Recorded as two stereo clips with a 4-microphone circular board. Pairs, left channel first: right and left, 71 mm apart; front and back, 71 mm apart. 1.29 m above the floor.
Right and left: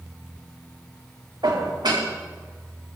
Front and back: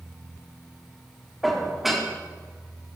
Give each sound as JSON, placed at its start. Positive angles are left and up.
{"t": 1.4, "sound": "dishes clattering", "azimuth_deg": 95, "distance_m": 1.8}